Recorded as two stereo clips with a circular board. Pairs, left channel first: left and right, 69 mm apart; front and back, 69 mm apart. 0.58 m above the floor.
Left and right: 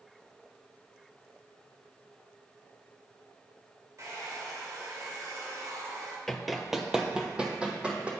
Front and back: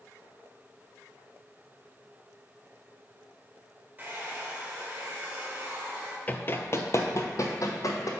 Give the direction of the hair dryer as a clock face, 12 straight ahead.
4 o'clock.